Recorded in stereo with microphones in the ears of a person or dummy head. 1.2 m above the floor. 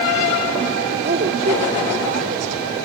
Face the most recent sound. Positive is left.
turn(degrees=-40)  # may be behind; listen again after turning